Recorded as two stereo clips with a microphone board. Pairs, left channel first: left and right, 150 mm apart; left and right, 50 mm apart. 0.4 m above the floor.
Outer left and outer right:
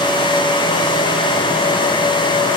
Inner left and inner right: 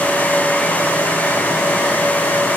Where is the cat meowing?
No cat meowing in this recording.